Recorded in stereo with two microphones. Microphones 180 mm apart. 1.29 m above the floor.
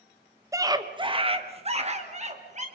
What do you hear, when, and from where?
0.5 s a scream: 15° right (ahead or behind), 1.2 m; by 2.7 s 40° right (ahead or behind), 3 m